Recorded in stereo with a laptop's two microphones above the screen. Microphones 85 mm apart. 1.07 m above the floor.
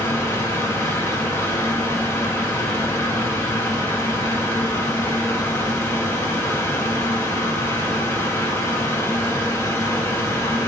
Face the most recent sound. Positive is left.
turn(degrees=30)  # may be behind; listen again after turning